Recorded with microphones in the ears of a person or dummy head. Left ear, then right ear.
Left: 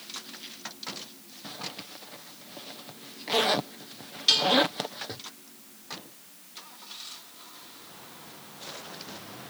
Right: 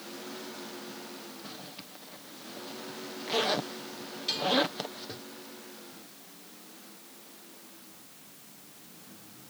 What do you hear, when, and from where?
1.4 s a zipper: 5° left (ahead or behind)
4.3 s dishes clattering: 30° left (ahead or behind)